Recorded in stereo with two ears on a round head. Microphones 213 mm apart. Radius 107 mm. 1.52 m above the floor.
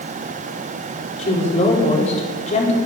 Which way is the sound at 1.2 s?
30° left (ahead or behind).